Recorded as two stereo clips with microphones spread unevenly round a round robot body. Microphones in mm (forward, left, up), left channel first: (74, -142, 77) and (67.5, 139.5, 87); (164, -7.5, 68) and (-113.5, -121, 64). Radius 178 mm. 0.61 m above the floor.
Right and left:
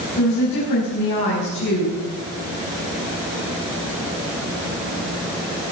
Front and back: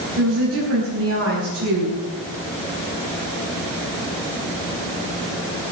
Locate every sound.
0.2 s a woman speaking: 120° right, 5 m